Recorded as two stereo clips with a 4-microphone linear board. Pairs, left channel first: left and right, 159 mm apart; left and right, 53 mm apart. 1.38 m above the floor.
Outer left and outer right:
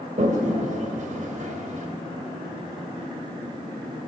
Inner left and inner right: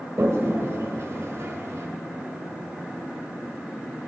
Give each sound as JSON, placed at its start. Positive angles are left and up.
{"t": 0.2, "sound": "a toilet flushing", "side_deg": -55, "distance_m": 2.0}